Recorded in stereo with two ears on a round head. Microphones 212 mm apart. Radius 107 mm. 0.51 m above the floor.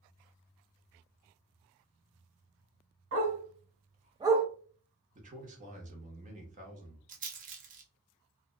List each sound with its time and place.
3.1 s a dog barking: 55° right (ahead or behind), 1.4 m; by 4.5 s 5° left (ahead or behind), 0.5 m
5.2 s a man speaking: 35° right (ahead or behind), 0.9 m
7.1 s a rattle: 35° right (ahead or behind), 0.5 m